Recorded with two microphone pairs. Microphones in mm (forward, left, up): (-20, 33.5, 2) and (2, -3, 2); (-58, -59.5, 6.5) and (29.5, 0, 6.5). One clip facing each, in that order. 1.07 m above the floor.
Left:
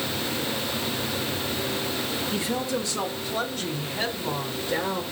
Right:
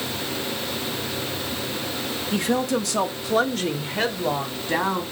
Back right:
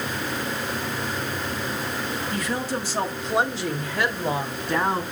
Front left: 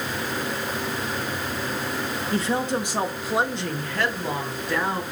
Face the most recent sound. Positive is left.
turn(degrees=-90)